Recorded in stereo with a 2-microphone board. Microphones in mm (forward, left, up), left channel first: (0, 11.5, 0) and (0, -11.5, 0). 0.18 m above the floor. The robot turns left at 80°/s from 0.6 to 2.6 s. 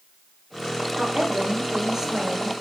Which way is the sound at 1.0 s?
70° right.